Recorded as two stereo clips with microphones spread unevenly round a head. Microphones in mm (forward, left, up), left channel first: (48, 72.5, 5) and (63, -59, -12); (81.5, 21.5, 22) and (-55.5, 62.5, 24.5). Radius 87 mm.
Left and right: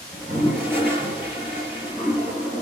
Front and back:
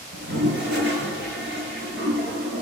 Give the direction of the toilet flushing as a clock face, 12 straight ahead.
6 o'clock.